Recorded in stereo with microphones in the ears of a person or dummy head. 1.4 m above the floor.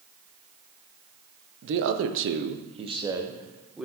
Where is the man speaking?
60° right (ahead or behind), 0.6 m; by 3.9 s centre (ahead or behind), 1.0 m.